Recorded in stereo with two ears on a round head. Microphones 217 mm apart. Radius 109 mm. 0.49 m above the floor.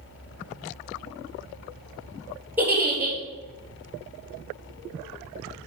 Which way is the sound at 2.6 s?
10° right (ahead or behind).